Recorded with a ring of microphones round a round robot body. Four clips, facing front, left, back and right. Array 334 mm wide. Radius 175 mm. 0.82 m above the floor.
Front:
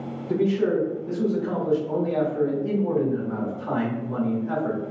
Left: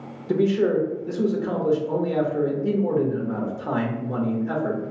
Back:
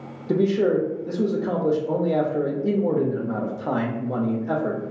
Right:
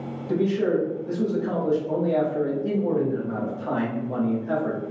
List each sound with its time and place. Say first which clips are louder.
0.3 s a man speaking: left 2 dB, back 2 dB; 160° left, 0.8 m